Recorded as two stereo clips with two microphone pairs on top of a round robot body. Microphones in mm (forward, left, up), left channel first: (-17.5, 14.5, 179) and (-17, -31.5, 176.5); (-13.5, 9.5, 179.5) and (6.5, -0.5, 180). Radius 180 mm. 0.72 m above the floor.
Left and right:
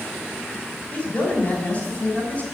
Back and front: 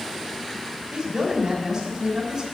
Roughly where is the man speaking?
Ahead left.